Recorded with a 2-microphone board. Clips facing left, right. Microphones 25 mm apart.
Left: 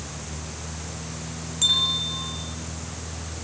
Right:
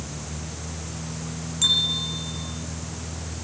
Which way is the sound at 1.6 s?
Centre (ahead or behind).